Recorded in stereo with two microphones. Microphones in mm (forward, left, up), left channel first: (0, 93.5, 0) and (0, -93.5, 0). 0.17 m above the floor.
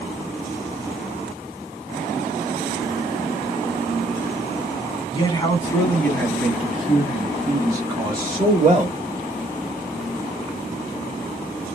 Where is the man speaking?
30° left (ahead or behind), 1.5 m; by 9.0 s 35° right (ahead or behind), 1.9 m.